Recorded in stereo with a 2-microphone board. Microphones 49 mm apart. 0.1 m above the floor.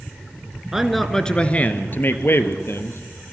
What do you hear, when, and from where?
0.7 s a man speaking: 10° right (ahead or behind), 1.7 m; by 3.0 s 60° left (ahead or behind), 3 m